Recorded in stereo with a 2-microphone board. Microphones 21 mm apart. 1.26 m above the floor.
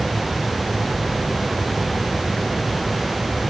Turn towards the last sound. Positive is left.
No sound to turn to.